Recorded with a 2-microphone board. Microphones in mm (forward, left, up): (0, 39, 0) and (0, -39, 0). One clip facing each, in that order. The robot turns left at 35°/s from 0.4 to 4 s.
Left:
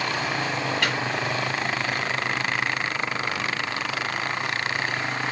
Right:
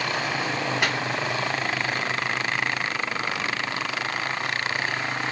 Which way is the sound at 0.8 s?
15° right (ahead or behind).